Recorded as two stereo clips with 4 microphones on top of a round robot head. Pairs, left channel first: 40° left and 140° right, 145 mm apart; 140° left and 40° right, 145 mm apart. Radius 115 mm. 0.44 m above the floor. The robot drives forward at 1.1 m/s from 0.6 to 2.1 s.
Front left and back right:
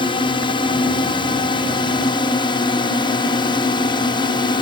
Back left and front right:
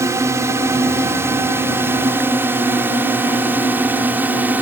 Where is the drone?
20° left; by 4.6 s 30° left.